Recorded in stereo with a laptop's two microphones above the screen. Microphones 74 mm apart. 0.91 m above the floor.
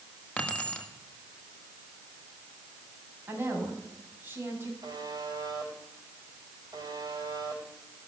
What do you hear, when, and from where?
0.4 s keys jangling: 20° left (ahead or behind), 1.6 m
3.3 s a woman speaking: 30° right (ahead or behind), 6 m
4.8 s a buzzer: 75° right (ahead or behind), 4 m